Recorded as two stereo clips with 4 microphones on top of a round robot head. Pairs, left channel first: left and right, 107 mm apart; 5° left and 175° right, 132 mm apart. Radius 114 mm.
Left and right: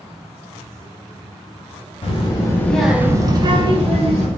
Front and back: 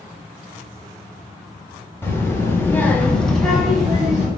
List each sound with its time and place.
2.0 s a child speaking: 75° left, 0.8 m; by 4.3 s 90° right, 1.2 m